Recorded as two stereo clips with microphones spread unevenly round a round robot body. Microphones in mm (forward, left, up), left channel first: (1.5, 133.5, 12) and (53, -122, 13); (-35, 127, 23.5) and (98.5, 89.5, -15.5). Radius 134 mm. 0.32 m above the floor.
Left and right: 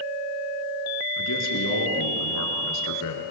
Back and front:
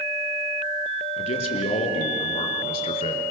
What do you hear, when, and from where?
1.2 s a man speaking: 130° left, 5 m